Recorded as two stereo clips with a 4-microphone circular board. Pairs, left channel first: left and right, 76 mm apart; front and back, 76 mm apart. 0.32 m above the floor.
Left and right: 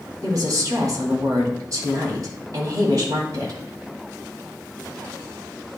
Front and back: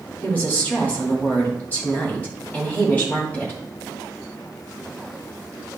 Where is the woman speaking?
65° right, 2.5 m.